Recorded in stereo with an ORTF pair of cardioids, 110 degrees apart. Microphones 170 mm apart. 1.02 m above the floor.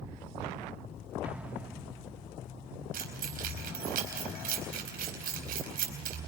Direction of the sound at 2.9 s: 60° right.